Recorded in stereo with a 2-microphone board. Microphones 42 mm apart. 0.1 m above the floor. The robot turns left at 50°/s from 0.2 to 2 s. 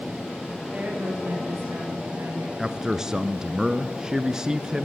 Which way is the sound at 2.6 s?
15° right (ahead or behind).